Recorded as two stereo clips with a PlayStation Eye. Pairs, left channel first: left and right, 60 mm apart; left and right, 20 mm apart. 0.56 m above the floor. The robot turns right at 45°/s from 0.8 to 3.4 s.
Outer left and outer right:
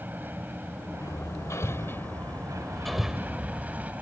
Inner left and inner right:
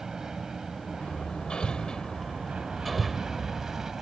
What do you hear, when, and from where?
0.0 s an aircraft: 35° right (ahead or behind); by 4.0 s 25° right (ahead or behind)
1.0 s hammering: 75° left (ahead or behind); by 3.9 s 20° right (ahead or behind)